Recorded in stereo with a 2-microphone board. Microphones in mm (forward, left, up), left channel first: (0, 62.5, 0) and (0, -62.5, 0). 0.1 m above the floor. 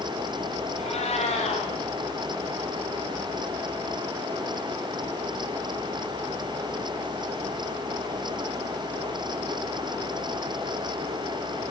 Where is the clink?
No clink in this recording.